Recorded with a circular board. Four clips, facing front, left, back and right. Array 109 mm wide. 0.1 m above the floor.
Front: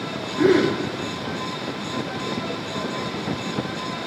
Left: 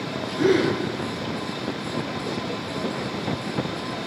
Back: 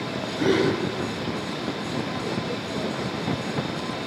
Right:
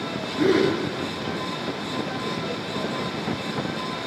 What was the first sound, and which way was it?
A gasp, 25° right.